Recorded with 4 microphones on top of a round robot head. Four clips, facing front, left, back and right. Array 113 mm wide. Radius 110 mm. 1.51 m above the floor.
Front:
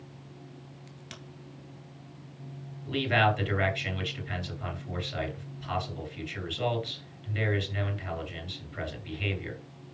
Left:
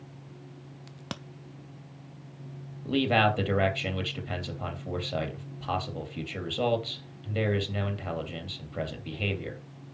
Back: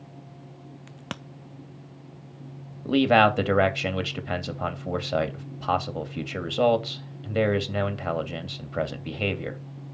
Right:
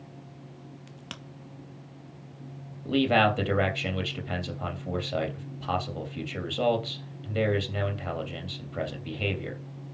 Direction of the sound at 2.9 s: 175° left.